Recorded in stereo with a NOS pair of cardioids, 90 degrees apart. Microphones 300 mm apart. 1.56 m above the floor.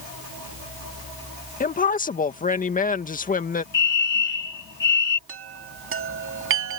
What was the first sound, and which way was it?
A woman speaking, 25° left.